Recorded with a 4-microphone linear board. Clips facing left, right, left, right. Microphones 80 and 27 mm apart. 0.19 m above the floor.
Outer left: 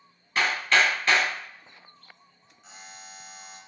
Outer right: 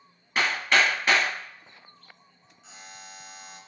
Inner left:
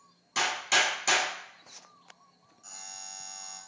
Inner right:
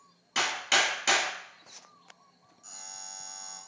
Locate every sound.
0.3 s hammering: 20° right (ahead or behind), 2.0 m
2.6 s a buzzer: 5° left (ahead or behind), 1.5 m